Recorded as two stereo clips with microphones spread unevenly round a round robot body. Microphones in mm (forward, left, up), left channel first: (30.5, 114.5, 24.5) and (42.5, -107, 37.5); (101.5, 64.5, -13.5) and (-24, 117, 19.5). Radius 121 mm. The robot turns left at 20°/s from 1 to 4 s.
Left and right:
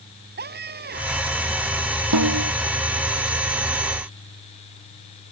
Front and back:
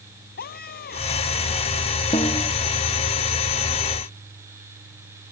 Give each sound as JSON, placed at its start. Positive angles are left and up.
{"t": 0.4, "sound": "a scream", "azimuth_deg": -40}
{"t": 2.1, "sound": "a snare drum", "azimuth_deg": -90}